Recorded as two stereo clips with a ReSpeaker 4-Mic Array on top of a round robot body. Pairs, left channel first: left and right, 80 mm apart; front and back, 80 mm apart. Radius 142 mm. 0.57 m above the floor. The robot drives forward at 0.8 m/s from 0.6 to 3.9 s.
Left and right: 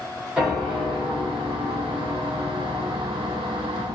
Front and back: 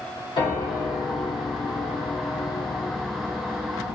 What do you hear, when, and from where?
0.4 s a piano: 10° right, 2.5 m; by 4.0 s 135° right, 0.9 m